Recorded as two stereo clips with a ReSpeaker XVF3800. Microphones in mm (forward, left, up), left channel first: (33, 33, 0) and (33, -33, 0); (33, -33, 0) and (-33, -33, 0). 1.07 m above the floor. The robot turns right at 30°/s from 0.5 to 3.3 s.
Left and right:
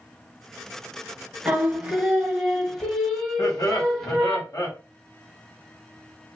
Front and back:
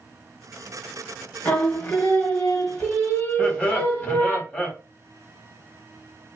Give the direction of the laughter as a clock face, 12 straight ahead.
10 o'clock.